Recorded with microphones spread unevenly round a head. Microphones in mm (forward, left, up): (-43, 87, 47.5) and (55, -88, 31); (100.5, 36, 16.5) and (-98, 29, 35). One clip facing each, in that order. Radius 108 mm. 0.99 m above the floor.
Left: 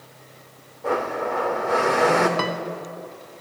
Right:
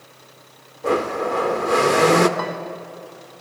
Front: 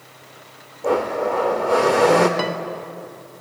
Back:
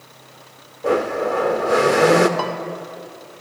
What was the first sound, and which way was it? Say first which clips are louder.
A blender: right 4 dB, back 1 dB; 110° right.